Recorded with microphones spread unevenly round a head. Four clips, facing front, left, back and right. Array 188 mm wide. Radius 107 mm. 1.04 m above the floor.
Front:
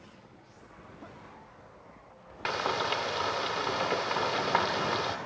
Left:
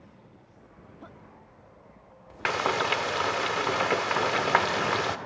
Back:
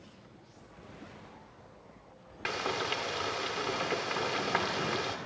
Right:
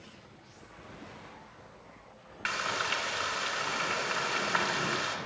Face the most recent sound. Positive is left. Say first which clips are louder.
# left 7 dB, front 4 dB
turn(degrees=50)